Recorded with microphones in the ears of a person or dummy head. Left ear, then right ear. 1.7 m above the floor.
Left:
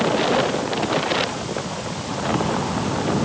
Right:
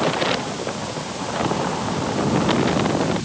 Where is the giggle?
No giggle in this recording.